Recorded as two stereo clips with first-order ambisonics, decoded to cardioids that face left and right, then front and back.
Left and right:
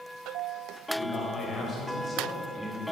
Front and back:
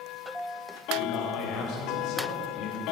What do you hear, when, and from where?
0.9 s a man speaking: 30° left, 3.5 m; by 2.8 s 5° left, 1.6 m